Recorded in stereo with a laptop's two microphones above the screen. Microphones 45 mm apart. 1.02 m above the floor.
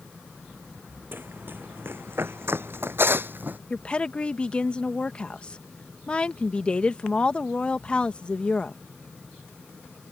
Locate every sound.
1.1 s running footsteps: 50° right (ahead or behind); by 3.6 s 45° right (ahead or behind)
3.7 s a woman speaking: 25° left (ahead or behind)